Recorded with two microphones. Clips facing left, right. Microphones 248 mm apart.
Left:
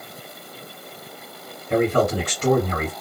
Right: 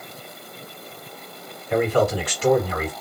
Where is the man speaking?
50° left (ahead or behind), 2 m.